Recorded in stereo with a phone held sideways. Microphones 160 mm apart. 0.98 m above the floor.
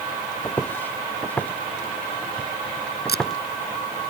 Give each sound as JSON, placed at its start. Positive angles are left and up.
{"t": 0.4, "sound": "footsteps", "side_deg": 10}
{"t": 3.1, "sound": "tape being pulled", "side_deg": 80}